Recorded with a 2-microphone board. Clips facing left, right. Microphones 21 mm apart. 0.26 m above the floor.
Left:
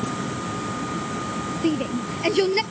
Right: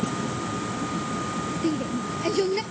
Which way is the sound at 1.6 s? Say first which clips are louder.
Left 4 dB; 35° left (ahead or behind).